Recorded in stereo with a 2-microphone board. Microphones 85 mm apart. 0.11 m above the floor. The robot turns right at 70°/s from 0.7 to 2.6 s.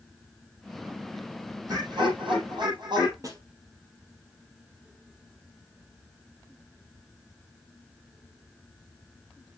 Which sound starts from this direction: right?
A snare drum, at 3.2 s.